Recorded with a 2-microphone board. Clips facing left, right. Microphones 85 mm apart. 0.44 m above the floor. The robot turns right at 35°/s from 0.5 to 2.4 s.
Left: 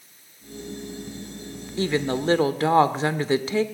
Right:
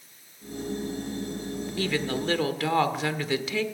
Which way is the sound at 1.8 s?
25° left (ahead or behind).